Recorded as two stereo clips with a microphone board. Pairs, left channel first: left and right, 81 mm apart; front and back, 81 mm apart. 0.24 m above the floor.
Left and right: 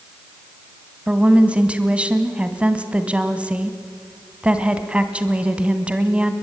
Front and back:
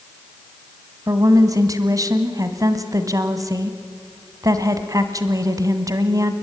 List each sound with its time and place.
1.1 s a woman speaking: 160° right, 1.8 m